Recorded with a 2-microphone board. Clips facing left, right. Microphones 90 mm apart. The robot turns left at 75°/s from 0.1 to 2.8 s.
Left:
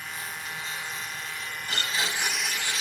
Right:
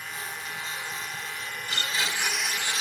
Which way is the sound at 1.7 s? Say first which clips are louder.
Even; 50° left.